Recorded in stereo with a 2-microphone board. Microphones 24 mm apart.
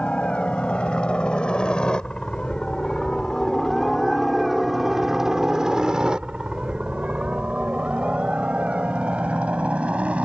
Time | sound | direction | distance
0.0 | a helicopter | 50° left (ahead or behind) | ?